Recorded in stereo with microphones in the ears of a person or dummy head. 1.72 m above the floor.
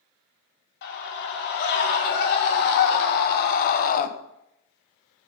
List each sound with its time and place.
0.8 s a scream: 60° left (ahead or behind), 5 m; by 4.1 s 50° left (ahead or behind), 1.5 m